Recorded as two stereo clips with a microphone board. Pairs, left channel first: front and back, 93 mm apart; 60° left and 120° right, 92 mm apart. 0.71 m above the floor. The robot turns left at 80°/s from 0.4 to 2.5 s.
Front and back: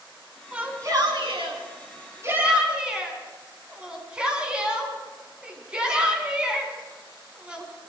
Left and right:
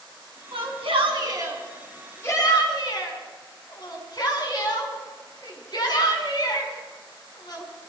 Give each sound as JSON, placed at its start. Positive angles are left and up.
{"t": 0.5, "sound": "a shout", "azimuth_deg": -100, "distance_m": 6.0}